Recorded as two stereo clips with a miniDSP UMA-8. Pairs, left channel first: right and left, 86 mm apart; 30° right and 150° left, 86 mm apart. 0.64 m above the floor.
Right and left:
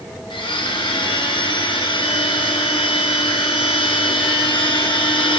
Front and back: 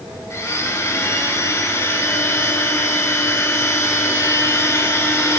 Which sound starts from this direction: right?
A blender, at 0.3 s.